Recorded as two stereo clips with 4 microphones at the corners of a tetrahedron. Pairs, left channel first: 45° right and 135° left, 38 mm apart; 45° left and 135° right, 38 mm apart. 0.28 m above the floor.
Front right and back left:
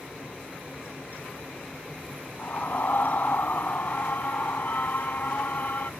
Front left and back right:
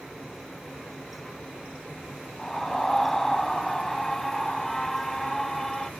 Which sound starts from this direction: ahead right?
A scream, at 2.4 s.